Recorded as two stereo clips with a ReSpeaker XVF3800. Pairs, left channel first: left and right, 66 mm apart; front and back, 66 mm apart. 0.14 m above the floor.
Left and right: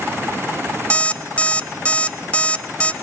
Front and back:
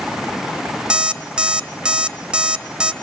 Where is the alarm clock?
125° left, 0.8 m.